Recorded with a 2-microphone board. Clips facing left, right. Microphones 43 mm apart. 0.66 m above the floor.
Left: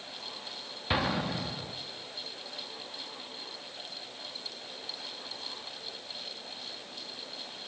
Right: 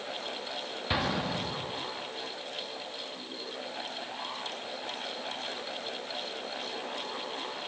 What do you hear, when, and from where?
0.9 s an explosion: 5° left (ahead or behind), 1.0 m